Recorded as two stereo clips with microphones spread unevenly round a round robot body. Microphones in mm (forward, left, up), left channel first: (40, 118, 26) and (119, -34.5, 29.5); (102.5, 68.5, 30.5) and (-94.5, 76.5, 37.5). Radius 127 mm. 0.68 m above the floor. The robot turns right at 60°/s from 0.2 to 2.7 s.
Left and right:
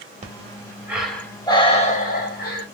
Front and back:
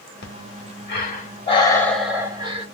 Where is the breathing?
20° right, 2.0 m; by 2.6 s 125° left, 2.0 m.